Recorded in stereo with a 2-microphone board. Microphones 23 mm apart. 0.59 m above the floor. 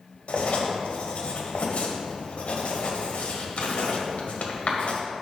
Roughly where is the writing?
Left.